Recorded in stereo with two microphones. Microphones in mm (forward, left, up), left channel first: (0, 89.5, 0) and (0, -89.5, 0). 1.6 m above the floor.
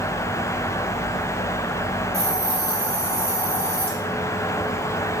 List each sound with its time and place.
2.1 s a hiss: 65° right (ahead or behind), 1.3 m